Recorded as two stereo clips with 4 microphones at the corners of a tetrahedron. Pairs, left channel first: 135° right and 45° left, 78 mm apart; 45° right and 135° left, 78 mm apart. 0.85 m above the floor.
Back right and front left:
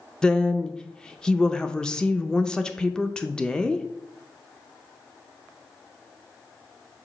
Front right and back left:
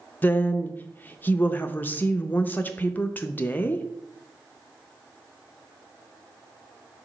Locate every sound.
0.2 s a woman speaking: 65° right, 0.6 m